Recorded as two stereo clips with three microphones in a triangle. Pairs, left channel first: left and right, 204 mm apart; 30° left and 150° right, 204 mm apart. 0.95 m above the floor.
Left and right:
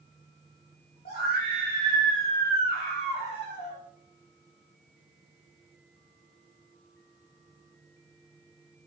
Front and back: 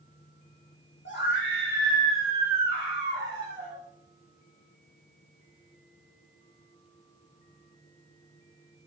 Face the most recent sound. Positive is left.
turn(degrees=30)